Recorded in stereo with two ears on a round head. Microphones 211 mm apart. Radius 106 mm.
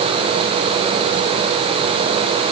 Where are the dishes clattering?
I don't hear dishes clattering.